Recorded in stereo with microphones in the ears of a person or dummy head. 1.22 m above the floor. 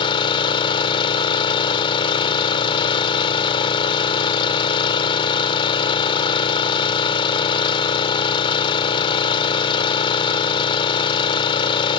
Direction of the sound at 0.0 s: 25° left (ahead or behind).